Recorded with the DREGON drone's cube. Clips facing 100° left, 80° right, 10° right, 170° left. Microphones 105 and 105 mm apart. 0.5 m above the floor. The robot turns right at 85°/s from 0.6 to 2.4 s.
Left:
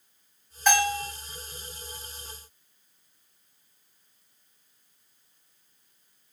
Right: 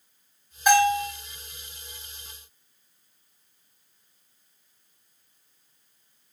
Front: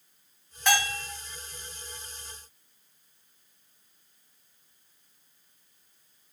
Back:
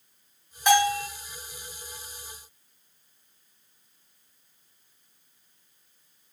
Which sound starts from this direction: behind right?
A bell, at 0.7 s.